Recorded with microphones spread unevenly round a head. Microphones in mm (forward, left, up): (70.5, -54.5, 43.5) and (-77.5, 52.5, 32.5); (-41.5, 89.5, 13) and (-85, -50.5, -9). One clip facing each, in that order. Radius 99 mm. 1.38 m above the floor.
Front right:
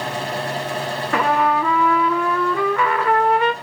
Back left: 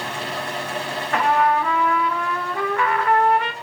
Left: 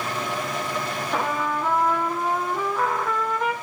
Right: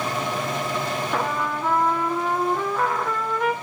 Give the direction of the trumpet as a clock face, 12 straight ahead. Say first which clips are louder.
Even, left 3 dB; 1 o'clock.